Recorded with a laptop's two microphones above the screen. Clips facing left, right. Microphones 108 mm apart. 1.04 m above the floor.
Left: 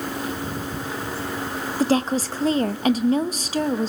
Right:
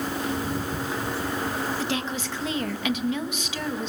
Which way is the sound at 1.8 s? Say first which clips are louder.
Left 8 dB; 35° left (ahead or behind).